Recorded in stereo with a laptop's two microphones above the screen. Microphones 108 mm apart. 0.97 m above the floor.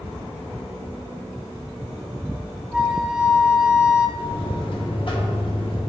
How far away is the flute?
About 0.8 m.